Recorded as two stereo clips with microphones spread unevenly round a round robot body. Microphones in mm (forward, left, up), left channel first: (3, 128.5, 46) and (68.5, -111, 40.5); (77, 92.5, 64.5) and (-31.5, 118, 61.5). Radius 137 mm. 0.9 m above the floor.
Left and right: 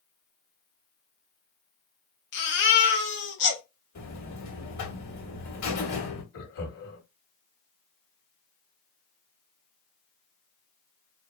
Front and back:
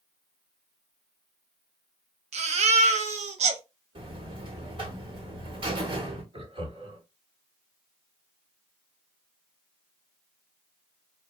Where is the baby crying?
155° left, 0.6 m.